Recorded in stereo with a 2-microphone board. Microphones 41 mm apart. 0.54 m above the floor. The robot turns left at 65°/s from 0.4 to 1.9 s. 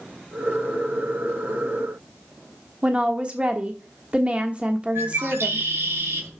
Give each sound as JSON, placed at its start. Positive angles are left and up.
{"t": 2.8, "sound": "a woman speaking", "side_deg": -30, "distance_m": 1.3}
{"t": 5.0, "sound": "a bird", "side_deg": -75, "distance_m": 3.5}